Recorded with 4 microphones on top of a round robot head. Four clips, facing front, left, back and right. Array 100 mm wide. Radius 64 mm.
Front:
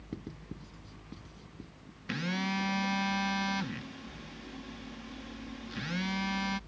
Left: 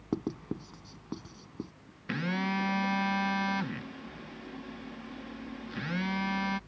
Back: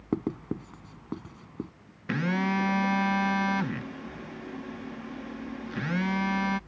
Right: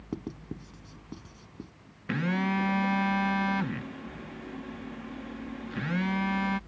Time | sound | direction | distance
0.1 | writing | 160° left | ?
2.1 | a phone buzzing | 165° right | ?